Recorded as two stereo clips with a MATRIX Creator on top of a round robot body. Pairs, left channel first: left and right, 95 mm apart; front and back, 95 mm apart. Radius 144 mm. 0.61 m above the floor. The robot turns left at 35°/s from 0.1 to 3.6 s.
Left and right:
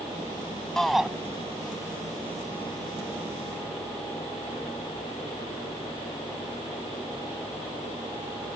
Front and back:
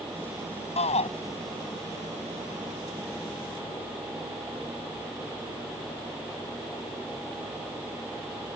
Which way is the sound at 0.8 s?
5° left.